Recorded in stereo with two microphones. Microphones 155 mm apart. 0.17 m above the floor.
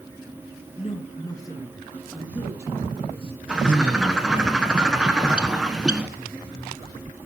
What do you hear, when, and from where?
0.8 s a woman speaking: 40° left (ahead or behind), 2.5 m; by 3.4 s 40° right (ahead or behind), 2.5 m
3.5 s a bird: 5° right (ahead or behind), 1.2 m